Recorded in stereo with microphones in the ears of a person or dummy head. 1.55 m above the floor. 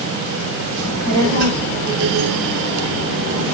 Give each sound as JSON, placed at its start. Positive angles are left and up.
{"t": 0.8, "sound": "a child speaking", "side_deg": -80, "distance_m": 4.0}